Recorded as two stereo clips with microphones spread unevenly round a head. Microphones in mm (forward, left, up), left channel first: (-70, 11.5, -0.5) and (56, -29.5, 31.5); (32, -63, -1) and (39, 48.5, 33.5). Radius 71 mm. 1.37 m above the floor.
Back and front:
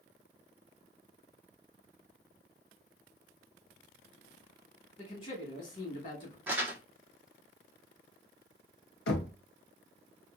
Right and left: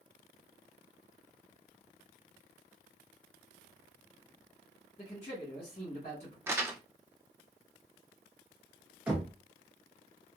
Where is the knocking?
165° left, 0.7 m.